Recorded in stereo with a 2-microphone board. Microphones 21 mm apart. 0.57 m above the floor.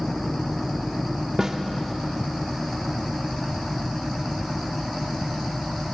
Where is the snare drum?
25° right (ahead or behind), 0.7 m.